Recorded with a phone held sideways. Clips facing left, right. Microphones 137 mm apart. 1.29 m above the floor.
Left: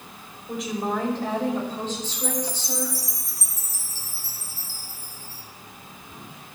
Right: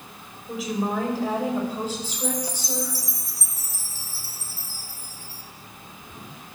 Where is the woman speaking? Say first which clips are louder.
Right 1 dB; centre (ahead or behind), 4.5 m; by 3.0 s 15° right (ahead or behind), 6 m.